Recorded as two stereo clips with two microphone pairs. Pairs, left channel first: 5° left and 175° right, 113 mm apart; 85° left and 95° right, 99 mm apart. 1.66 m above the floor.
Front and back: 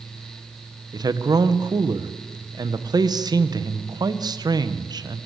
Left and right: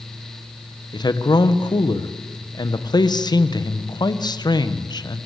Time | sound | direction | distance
0.9 | a man speaking | 130° left | 1.5 m